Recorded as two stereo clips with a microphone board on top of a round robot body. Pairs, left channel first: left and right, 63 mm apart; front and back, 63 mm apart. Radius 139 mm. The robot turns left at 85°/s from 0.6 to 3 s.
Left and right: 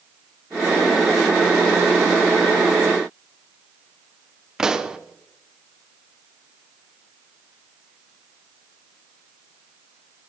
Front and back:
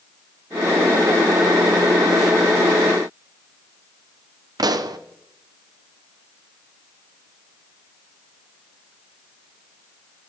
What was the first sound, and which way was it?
A pop, 170° right.